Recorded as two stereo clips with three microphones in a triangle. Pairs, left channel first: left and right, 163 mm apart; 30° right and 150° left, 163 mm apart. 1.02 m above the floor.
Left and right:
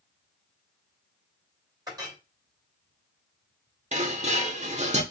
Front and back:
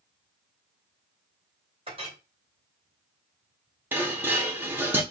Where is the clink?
155° right, 2.5 m.